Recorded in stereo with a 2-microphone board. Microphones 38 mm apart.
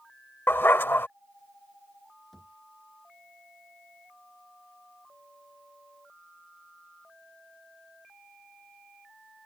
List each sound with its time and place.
0.5 s a dog barking: 75° left (ahead or behind)
2.3 s a thud: 10° left (ahead or behind)